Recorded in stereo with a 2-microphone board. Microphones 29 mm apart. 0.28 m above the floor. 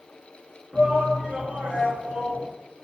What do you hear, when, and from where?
0.7 s a shout: 45° right (ahead or behind), 3.5 m